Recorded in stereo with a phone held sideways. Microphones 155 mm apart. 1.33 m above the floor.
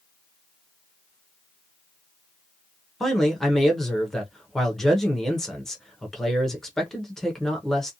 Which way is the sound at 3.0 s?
5° left (ahead or behind).